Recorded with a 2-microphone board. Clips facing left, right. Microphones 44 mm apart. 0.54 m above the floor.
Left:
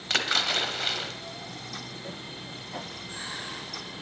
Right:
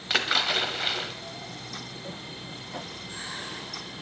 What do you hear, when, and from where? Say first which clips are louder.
0.1 s a splash: right 1 dB; 10° right (ahead or behind), 0.7 m